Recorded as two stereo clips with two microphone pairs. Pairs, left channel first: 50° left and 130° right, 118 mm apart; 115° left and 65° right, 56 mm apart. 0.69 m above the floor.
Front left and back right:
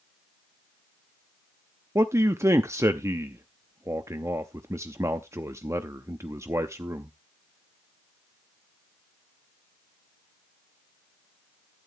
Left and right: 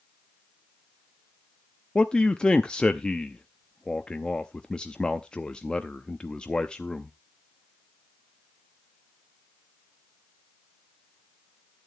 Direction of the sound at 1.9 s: 175° left.